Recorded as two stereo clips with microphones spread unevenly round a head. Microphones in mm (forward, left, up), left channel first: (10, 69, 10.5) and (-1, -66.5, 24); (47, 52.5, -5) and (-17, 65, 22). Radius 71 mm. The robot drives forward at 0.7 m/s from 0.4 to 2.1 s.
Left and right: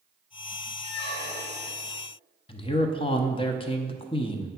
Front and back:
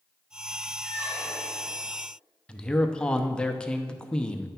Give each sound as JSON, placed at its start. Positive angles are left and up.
{"t": 0.8, "sound": "a squeak", "azimuth_deg": 135, "distance_m": 1.4}
{"t": 2.5, "sound": "a man speaking", "azimuth_deg": 45, "distance_m": 0.8}